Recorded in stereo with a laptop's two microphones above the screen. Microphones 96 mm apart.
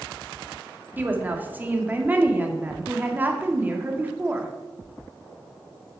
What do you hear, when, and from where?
1.0 s a woman speaking: 20° right (ahead or behind), 1.7 m